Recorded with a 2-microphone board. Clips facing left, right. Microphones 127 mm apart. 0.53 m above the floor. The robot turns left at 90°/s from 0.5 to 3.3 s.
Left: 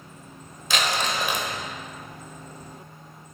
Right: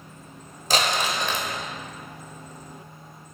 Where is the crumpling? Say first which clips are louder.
Right 2 dB; 140° right, 1.1 m; by 1.5 s 155° left, 1.1 m.